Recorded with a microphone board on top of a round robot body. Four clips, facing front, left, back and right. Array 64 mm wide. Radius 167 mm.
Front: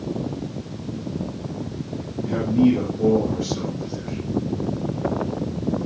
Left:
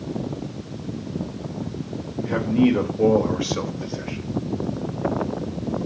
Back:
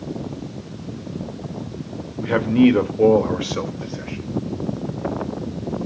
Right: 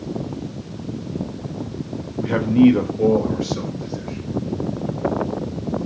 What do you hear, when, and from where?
2.2 s a man speaking: 160° right, 2.5 m; by 4.2 s 140° left, 3 m